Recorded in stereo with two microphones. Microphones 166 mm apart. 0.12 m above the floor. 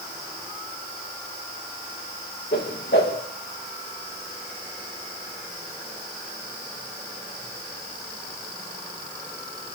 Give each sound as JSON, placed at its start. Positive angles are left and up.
{"t": 2.5, "sound": "a whoosh", "side_deg": 80, "distance_m": 5.0}